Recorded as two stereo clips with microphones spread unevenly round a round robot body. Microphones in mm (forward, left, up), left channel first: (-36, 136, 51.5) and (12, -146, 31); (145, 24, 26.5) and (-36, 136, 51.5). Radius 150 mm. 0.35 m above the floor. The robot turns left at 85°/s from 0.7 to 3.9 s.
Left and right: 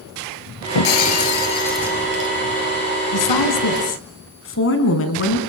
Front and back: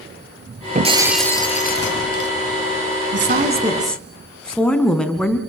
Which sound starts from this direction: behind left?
A woman speaking, at 3.1 s.